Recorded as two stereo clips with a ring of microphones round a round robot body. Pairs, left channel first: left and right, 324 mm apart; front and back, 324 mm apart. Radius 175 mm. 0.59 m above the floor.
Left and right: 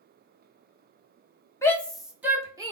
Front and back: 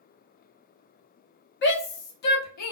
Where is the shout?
15° left, 0.8 m; by 2.7 s 15° right, 1.2 m.